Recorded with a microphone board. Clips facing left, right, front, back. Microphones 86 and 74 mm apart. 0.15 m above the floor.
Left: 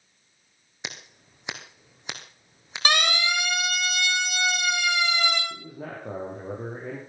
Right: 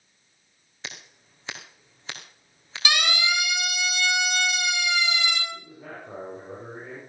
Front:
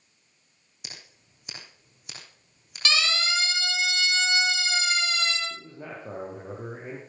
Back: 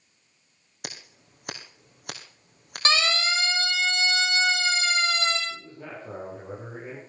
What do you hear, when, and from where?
0.8 s scissors: 160° left, 2.5 m
2.9 s a siren: 130° left, 4 m
5.5 s a man speaking: 70° left, 5.5 m